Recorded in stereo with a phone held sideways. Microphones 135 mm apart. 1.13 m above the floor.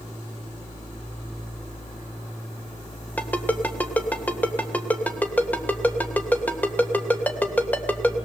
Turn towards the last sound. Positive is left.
turn(degrees=10)  # may be behind; listen again after turning